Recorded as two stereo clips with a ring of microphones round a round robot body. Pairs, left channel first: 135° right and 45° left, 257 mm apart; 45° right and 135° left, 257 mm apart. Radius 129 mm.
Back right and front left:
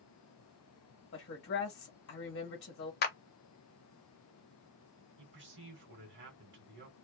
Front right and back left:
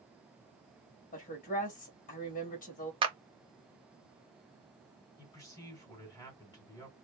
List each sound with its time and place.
1.1 s a woman speaking: 95° right, 1.5 m
3.0 s a clap: 165° right, 0.8 m
5.2 s a man speaking: 25° left, 2 m